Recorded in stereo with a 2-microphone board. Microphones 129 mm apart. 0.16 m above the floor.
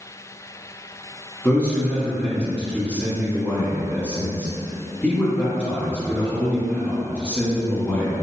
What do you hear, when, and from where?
1.4 s a man speaking: 10° left (ahead or behind), 1.3 m